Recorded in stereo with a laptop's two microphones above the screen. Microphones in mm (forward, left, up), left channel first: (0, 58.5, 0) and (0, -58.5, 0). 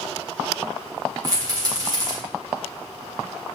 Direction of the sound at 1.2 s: 30° right (ahead or behind).